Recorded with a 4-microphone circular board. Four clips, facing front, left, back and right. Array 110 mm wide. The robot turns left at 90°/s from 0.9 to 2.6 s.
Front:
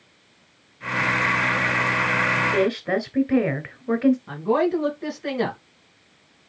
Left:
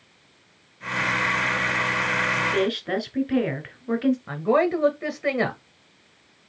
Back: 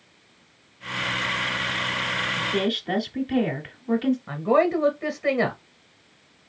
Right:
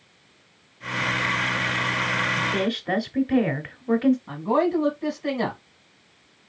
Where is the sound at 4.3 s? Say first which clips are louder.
Left 1 dB, back 1 dB; 110° left, 2 m.